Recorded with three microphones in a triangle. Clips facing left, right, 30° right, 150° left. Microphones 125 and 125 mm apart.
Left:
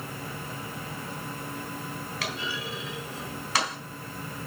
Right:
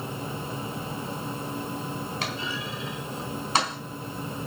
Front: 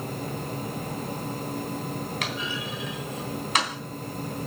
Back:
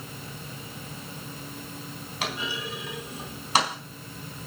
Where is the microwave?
I don't hear a microwave.